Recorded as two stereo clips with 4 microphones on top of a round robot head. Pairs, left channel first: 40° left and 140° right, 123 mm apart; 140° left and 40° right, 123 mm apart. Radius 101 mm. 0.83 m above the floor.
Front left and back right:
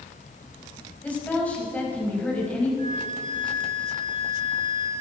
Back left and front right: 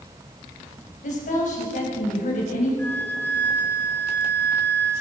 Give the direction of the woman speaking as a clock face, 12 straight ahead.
8 o'clock.